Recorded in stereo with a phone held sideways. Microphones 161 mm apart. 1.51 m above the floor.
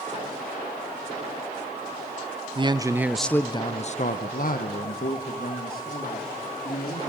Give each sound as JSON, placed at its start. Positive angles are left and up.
{"t": 2.5, "sound": "a man speaking", "side_deg": -35, "distance_m": 0.7}